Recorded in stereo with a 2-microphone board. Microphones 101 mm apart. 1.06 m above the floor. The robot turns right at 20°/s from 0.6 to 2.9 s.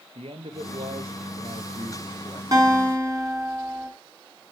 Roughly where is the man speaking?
Right.